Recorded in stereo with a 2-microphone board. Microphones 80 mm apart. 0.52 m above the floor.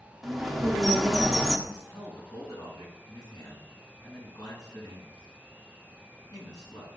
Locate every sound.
0.2 s a bird: centre (ahead or behind), 0.8 m
1.7 s a man speaking: 50° left (ahead or behind), 5 m